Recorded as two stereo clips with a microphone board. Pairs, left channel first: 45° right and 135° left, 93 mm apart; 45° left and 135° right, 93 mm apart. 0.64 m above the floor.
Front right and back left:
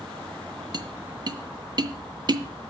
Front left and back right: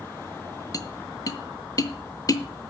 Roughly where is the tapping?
Left.